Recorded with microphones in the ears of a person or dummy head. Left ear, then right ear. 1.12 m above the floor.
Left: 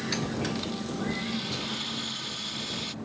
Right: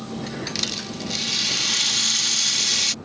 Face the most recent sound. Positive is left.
turn(degrees=-70)  # may be behind; listen again after turning